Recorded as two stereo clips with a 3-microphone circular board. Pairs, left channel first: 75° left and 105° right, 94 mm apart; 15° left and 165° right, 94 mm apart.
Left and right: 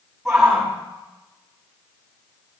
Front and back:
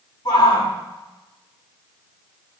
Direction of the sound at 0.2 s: 15° right.